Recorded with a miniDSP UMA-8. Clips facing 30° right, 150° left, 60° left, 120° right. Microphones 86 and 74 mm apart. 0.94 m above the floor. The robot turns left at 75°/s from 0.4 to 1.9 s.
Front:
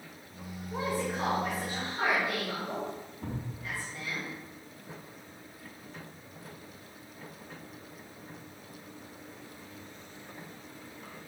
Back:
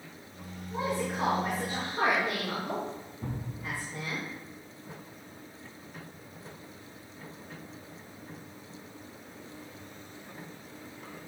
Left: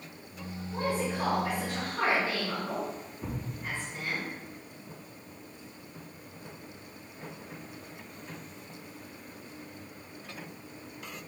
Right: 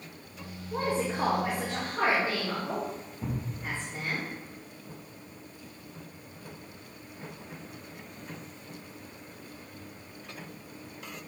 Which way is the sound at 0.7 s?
95° right.